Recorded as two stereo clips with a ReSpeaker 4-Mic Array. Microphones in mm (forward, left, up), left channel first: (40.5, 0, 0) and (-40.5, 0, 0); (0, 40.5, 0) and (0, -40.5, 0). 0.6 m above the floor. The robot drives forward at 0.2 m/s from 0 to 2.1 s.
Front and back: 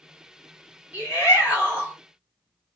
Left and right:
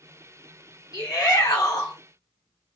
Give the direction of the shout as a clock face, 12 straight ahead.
8 o'clock.